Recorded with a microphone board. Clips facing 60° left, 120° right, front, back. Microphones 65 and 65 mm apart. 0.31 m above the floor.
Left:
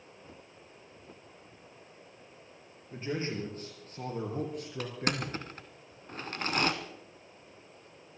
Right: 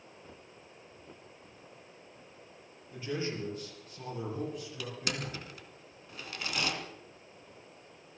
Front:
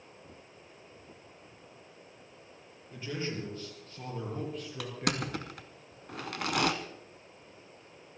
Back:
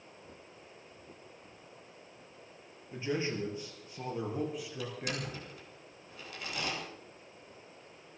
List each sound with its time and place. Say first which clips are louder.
2.9 s a man speaking: left 1 dB, back 3 dB; 115° left, 6.5 m; by 5.4 s 85° left, 4.5 m
4.8 s crushing: left 5 dB, front 7 dB; 15° left, 1.4 m